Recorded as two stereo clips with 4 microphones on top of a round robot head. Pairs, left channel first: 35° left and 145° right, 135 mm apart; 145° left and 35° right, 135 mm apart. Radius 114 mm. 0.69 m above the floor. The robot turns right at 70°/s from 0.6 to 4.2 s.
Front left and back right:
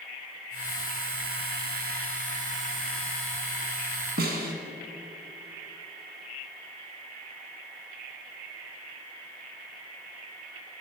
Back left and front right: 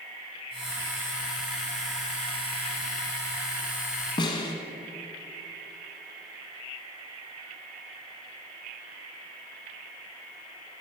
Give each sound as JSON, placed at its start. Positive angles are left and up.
{"t": 4.2, "sound": "a snare drum", "azimuth_deg": -155, "distance_m": 1.5}